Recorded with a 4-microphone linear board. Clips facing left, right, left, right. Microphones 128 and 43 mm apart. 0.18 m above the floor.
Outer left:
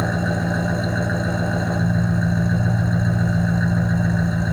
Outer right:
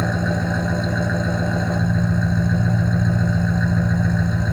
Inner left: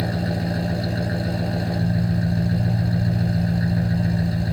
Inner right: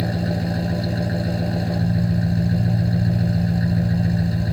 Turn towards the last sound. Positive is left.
turn(degrees=0)  # may be behind; listen again after turning